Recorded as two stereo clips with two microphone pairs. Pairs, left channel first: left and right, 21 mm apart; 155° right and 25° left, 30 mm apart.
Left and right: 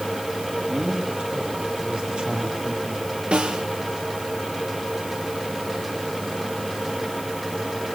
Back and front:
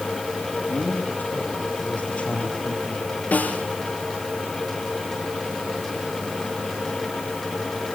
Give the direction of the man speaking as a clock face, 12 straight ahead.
4 o'clock.